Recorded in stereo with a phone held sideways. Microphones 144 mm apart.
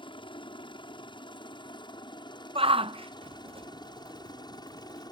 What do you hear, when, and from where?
0.0 s a helicopter: 35° left (ahead or behind); by 5.1 s 30° left (ahead or behind)
2.5 s a shout: 40° right (ahead or behind)